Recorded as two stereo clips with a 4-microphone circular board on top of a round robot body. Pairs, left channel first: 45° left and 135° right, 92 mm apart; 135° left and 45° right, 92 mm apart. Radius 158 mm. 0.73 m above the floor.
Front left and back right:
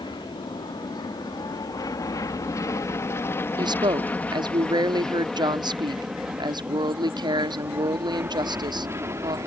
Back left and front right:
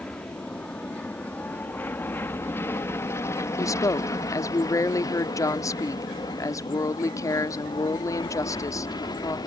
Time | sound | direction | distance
0.0 | an aircraft | 60° left | ?
3.6 | a woman speaking | 170° right | ?